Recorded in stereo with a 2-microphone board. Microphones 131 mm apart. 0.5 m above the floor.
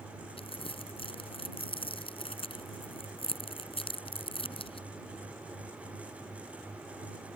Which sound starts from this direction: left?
Crumpling, at 0.4 s.